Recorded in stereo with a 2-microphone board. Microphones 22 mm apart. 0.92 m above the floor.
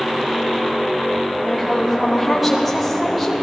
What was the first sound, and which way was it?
A woman speaking, centre (ahead or behind).